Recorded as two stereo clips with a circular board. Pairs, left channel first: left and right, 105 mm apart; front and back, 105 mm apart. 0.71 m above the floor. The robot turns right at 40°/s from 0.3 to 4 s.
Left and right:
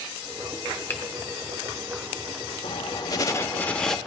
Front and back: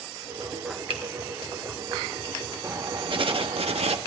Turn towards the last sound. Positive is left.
turn(degrees=180)